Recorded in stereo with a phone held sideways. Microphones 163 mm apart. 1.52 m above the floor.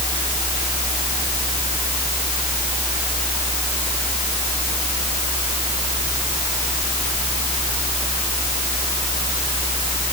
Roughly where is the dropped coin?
I don't hear a dropped coin.